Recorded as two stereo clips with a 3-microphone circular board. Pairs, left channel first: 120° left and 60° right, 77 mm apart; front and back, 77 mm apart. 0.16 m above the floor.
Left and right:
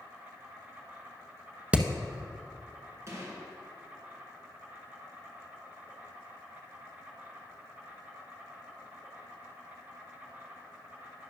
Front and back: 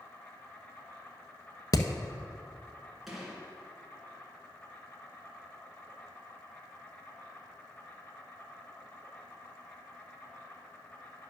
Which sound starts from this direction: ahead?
Hammering, at 1.7 s.